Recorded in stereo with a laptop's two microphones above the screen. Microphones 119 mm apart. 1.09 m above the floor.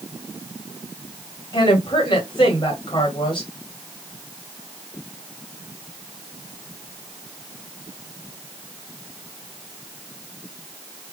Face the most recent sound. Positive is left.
turn(degrees=45)  # may be behind; listen again after turning